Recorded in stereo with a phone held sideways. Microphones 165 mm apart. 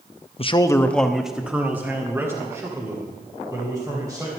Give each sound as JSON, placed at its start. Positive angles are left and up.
{"t": 0.4, "sound": "a man speaking", "side_deg": 40, "distance_m": 0.5}